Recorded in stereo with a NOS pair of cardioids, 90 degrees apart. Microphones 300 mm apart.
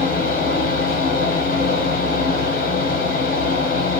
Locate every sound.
0.0 s a fan: 30° left, 0.7 m